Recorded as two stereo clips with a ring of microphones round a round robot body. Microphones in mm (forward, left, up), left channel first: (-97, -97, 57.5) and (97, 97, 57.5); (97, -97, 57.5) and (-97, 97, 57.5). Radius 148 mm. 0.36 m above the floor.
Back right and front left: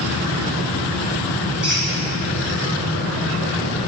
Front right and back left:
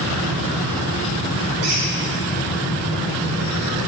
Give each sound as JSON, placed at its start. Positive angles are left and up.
{"t": 1.6, "sound": "a squeak", "azimuth_deg": 130, "distance_m": 2.5}